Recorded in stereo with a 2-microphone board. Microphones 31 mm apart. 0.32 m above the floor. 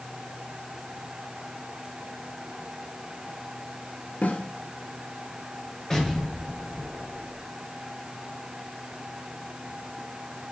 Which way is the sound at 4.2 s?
80° left.